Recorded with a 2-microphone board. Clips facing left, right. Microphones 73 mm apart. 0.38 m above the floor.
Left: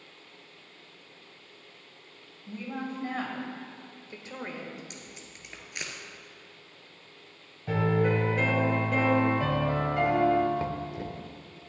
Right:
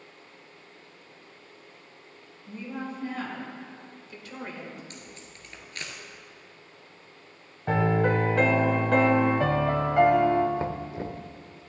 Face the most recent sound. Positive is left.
turn(degrees=-30)  # may be behind; listen again after turning